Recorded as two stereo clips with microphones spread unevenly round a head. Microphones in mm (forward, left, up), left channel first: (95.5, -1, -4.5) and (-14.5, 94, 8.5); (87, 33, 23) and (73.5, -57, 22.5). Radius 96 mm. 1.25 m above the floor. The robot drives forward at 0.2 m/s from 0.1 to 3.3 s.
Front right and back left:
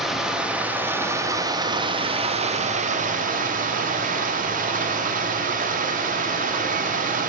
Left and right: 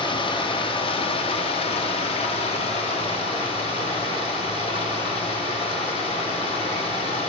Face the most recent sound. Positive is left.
turn(degrees=110)